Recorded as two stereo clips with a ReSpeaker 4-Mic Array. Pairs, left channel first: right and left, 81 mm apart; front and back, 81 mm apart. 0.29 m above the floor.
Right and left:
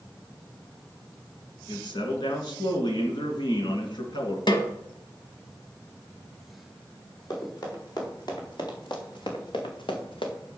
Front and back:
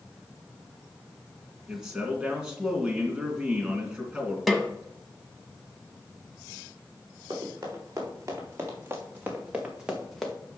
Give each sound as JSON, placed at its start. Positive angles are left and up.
{"t": 1.7, "sound": "a man speaking", "azimuth_deg": -100, "distance_m": 2.5}
{"t": 4.5, "sound": "a snare drum", "azimuth_deg": -90, "distance_m": 1.2}
{"t": 7.3, "sound": "running footsteps", "azimuth_deg": -130, "distance_m": 5.0}